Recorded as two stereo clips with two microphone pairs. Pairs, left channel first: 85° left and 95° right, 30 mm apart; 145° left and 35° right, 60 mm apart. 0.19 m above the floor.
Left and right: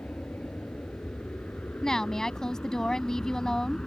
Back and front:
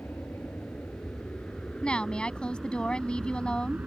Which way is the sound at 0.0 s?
95° left.